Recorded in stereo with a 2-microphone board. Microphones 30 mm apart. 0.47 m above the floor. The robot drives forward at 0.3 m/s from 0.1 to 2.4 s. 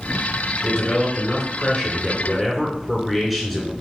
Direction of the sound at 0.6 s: 5° right (ahead or behind).